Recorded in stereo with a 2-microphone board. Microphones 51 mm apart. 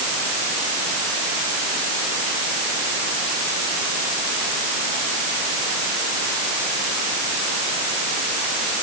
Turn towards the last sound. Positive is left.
No sound to turn to.